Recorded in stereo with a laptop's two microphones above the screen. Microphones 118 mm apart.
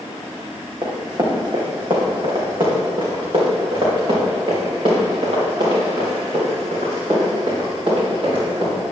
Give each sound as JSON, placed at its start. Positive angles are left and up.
{"t": 0.8, "sound": "running footsteps", "side_deg": -40, "distance_m": 2.0}